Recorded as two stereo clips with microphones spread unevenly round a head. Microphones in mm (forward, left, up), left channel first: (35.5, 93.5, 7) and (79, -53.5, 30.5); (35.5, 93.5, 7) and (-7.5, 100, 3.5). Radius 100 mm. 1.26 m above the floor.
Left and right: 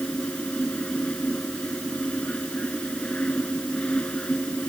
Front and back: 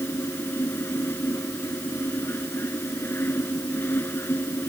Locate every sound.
0.0 s a fan: 25° left